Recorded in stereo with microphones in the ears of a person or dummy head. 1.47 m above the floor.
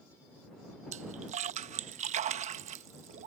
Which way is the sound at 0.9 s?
35° right (ahead or behind).